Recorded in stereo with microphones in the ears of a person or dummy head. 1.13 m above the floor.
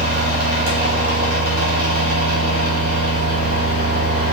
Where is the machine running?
85° right, 1.8 m.